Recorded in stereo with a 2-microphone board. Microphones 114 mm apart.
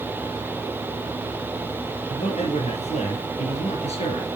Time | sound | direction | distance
2.1 | a man speaking | 75° left (ahead or behind) | 5.5 m